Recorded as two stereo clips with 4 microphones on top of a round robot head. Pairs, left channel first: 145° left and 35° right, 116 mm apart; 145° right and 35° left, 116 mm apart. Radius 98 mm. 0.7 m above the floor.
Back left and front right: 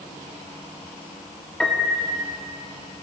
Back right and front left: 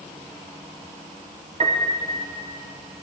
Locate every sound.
1.6 s a piano: 60° left, 1.2 m